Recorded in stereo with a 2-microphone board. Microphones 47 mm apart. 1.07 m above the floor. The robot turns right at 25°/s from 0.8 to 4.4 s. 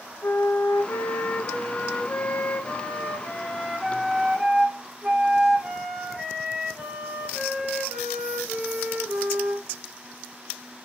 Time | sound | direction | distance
0.2 | a flute | 100° left | 0.7 m